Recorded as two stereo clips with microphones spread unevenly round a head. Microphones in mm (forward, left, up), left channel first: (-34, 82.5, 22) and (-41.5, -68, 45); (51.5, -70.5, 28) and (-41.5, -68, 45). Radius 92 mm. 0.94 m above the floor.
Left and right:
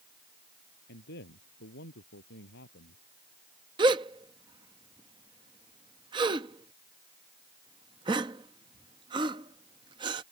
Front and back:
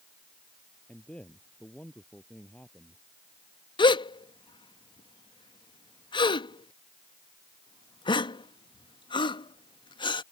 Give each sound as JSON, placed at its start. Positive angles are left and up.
{"t": 0.9, "sound": "a man speaking", "azimuth_deg": 80}
{"t": 3.8, "sound": "a gasp", "azimuth_deg": -30}